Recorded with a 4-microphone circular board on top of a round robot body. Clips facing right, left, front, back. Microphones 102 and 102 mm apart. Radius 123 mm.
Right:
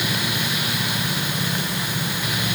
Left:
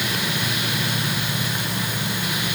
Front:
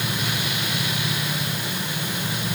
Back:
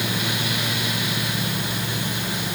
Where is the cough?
No cough in this recording.